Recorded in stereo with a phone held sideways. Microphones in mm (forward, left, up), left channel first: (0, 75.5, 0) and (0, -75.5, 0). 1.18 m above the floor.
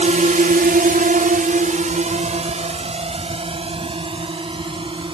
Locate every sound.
0.0 s a drone: 55° right (ahead or behind); by 5.1 s 35° right (ahead or behind)